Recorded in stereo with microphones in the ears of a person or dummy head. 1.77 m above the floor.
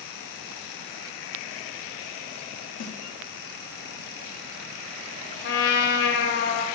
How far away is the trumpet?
About 0.7 m.